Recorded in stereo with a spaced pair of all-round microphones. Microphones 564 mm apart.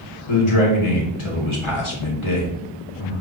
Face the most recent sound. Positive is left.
turn(degrees=60)  # may be behind; listen again after turning